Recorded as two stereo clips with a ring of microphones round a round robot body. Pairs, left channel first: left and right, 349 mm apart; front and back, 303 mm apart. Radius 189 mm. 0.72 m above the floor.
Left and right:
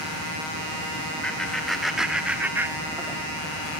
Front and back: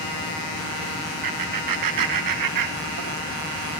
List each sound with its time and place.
1.2 s laughter: straight behind, 3 m; by 3.2 s 165° right, 1.6 m